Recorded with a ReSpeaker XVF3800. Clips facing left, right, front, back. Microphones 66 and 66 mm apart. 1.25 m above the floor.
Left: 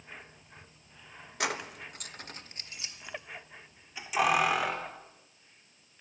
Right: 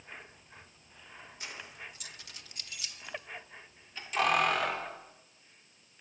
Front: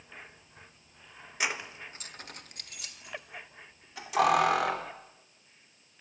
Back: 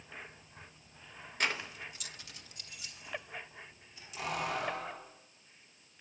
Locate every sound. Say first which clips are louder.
1.4 s keys jangling: left 12 dB, front 1 dB; 80° left, 1.1 m; by 4.9 s 5° left, 3.5 m